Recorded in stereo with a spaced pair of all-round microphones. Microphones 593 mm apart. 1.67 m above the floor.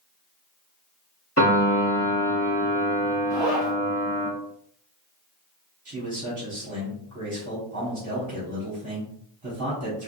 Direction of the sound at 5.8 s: 30° right (ahead or behind).